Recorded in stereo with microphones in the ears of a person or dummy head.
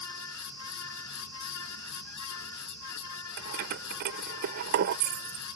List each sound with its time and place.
0.0 s a fan: 80° left
3.4 s keys jangling: 50° right (ahead or behind)